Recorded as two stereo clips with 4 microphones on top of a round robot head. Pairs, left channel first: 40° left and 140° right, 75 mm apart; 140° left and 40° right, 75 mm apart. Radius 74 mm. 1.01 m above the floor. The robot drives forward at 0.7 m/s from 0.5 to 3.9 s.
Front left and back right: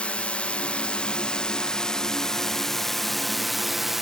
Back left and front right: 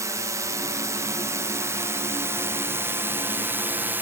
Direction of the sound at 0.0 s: 30° right.